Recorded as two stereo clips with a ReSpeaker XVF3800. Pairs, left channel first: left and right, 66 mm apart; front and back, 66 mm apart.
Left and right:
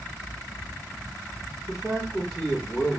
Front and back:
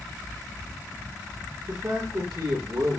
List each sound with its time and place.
1.7 s a man speaking: 175° left, 3 m